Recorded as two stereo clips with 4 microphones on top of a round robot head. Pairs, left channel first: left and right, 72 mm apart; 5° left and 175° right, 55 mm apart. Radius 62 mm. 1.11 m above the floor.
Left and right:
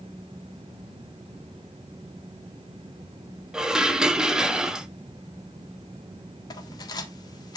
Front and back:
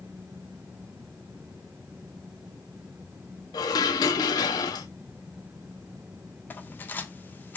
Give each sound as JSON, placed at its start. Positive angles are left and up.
{"t": 3.5, "sound": "dishes clattering", "azimuth_deg": -10, "distance_m": 0.8}
{"t": 6.5, "sound": "cutlery clinking", "azimuth_deg": 60, "distance_m": 1.7}